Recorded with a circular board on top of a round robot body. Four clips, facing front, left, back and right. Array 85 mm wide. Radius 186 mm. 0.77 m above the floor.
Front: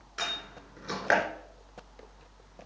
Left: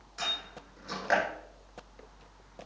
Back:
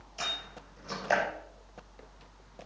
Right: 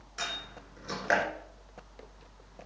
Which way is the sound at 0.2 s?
10° right.